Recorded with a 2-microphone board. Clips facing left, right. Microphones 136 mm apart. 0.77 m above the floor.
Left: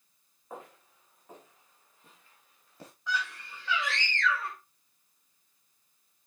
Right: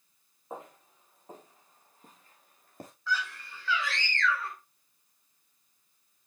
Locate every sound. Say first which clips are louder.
0.5 s footsteps: right 2 dB; 20° right (ahead or behind), 4.5 m; by 2.9 s 50° right (ahead or behind), 4 m
3.1 s a scream: even; 20° left (ahead or behind), 2.5 m